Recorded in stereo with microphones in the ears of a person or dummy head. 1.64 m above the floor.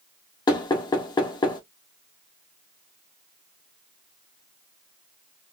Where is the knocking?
20° left (ahead or behind), 0.7 m.